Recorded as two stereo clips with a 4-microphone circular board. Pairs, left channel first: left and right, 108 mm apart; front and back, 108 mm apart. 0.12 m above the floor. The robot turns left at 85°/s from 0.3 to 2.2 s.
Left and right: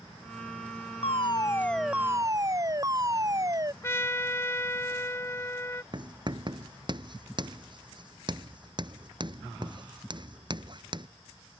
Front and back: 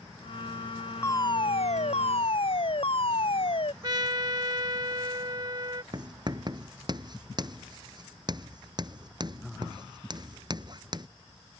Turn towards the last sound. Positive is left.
turn(degrees=-130)